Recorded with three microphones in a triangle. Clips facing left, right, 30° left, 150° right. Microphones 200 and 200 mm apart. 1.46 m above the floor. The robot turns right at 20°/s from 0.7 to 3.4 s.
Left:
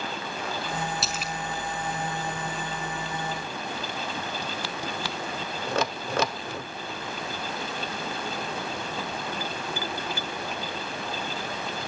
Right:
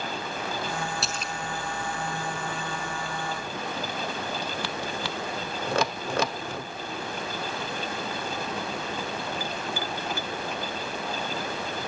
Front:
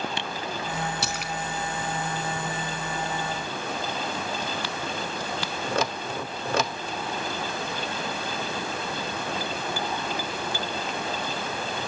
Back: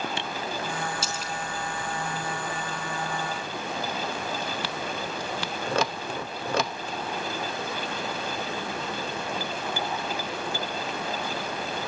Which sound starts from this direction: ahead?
A splash, at 1.0 s.